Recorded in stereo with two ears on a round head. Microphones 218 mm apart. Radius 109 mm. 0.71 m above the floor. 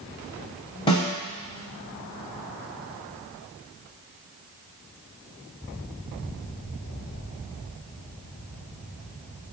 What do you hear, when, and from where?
0.9 s a snare drum: 20° left (ahead or behind), 1.0 m